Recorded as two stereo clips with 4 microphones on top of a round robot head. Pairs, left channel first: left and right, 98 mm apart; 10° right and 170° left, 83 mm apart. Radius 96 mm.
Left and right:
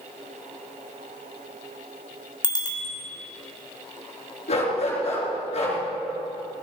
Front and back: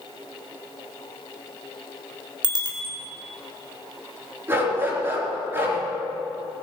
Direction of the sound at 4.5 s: 105° left.